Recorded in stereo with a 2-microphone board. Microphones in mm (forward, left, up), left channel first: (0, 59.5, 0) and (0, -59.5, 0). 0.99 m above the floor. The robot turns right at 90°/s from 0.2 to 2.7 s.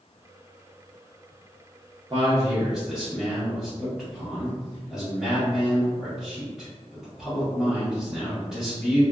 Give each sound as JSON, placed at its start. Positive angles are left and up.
{"t": 2.1, "sound": "a man speaking", "azimuth_deg": -55, "distance_m": 1.0}